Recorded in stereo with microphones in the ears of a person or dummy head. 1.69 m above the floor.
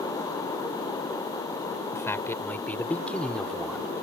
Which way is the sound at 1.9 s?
15° left (ahead or behind).